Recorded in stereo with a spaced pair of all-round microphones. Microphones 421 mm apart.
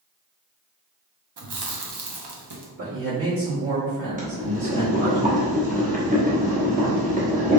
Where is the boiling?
20° right (ahead or behind), 1.0 m.